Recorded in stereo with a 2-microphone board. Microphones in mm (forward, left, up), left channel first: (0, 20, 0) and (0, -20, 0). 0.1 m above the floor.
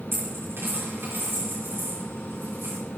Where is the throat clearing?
I don't hear throat clearing.